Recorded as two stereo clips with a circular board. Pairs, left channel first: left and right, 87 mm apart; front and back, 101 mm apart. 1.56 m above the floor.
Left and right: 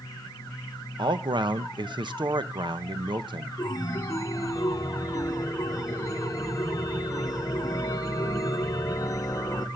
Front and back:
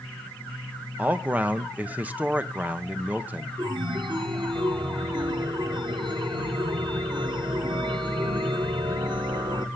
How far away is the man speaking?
About 1.1 m.